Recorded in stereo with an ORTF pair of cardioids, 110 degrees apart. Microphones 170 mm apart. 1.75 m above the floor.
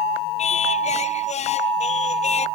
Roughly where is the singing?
Ahead left.